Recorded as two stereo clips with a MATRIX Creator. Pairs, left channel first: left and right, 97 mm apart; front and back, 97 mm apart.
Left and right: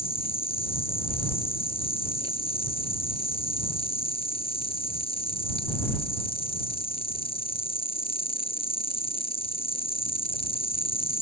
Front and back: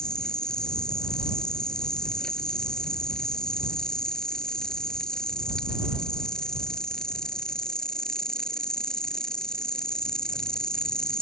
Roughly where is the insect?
Left.